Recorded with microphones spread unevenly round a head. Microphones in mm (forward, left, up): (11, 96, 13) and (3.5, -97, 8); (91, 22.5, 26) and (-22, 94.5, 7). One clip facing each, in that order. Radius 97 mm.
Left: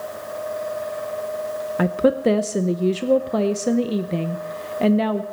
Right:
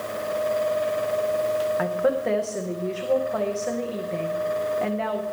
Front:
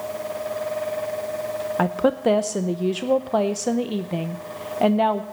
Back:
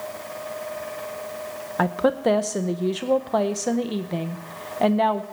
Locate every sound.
1.8 s a woman speaking: 55° left, 0.6 m